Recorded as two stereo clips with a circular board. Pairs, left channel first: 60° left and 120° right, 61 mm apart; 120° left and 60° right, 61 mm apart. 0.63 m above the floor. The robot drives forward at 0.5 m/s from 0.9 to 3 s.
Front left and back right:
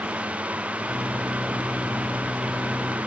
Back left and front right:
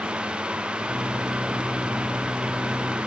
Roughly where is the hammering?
No hammering in this recording.